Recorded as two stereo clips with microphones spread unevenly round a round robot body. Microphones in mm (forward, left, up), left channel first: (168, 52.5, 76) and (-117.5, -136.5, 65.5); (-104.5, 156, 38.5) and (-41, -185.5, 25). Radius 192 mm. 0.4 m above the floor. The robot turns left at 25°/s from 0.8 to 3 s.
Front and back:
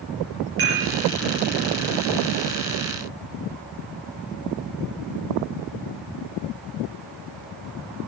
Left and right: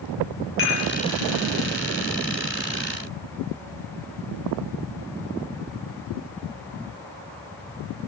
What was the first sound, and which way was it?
Dishes clattering, 155° left.